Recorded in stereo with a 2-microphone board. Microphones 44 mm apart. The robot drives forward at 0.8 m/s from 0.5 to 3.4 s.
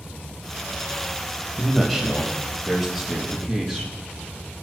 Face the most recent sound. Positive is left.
turn(degrees=0)  # may be behind; listen again after turning